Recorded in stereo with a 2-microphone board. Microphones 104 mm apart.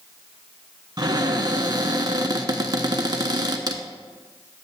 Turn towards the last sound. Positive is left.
turn(degrees=-45)  # may be behind; listen again after turning